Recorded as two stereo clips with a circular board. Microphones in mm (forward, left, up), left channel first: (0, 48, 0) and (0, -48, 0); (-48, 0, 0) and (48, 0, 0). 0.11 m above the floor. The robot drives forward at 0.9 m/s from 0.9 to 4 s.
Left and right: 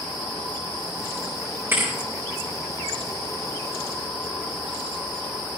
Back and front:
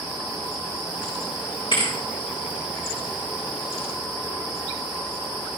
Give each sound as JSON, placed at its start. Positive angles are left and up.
{"t": 1.7, "sound": "a thud", "azimuth_deg": -155, "distance_m": 4.0}